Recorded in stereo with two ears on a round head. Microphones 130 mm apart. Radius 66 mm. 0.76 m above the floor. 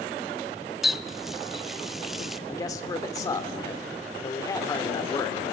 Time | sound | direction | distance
0.8 | a running tap | centre (ahead or behind) | 0.6 m
2.5 | a man speaking | 25° left (ahead or behind) | 2 m